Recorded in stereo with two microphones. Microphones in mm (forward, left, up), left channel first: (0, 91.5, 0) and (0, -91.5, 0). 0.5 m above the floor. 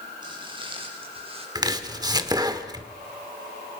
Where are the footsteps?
25° right (ahead or behind), 7.5 m; by 1.4 s 30° right (ahead or behind), 8 m.